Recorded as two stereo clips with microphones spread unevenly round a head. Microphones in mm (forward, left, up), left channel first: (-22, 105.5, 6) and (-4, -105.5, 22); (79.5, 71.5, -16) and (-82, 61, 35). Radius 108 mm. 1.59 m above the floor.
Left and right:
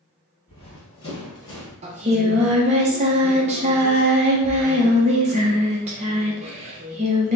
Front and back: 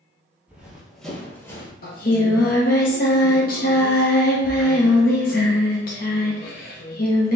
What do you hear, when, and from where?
0.5 s running footsteps: 145° left, 1.8 m; by 1.7 s 70° left, 1.5 m
1.8 s singing: 45° right, 0.7 m